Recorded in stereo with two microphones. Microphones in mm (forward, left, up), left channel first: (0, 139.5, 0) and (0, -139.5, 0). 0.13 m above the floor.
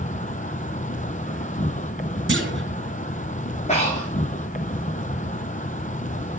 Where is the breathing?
25° left (ahead or behind), 7.5 m.